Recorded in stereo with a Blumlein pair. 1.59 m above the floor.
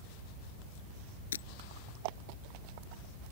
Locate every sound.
1.3 s breaking glass: 65° left